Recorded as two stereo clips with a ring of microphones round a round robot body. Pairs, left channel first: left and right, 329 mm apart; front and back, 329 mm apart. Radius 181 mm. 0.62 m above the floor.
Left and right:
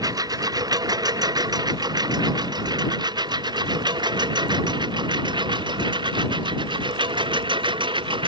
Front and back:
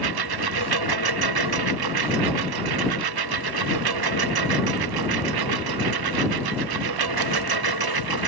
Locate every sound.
0.0 s a lawn mower: 170° right; by 8.3 s 165° right